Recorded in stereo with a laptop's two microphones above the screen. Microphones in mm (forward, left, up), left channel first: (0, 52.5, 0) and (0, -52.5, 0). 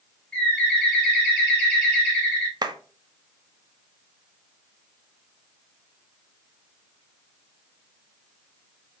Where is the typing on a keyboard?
I don't hear typing on a keyboard.